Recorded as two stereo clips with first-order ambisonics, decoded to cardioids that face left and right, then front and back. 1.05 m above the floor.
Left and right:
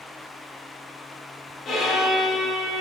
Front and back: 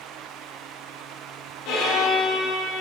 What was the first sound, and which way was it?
A violin, 35° left.